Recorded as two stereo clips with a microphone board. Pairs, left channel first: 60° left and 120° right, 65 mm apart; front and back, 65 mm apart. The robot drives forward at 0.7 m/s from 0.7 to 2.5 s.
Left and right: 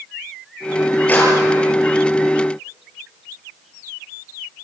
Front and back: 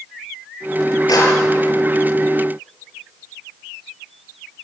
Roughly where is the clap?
Ahead.